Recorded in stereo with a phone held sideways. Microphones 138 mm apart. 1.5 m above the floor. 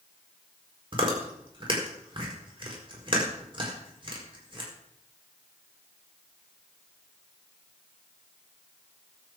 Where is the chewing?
40° right (ahead or behind), 4.5 m.